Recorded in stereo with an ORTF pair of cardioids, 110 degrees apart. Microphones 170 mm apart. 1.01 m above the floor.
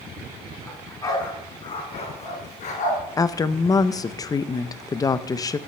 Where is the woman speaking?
20° left, 0.5 m.